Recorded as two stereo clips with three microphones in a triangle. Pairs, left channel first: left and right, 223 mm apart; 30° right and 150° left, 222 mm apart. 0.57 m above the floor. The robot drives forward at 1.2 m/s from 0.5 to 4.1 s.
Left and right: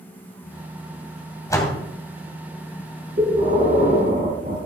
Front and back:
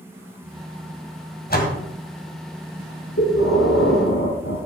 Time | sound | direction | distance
1.5 | a door slam | 15° left | 2.5 m
3.2 | breathing | 35° right | 5 m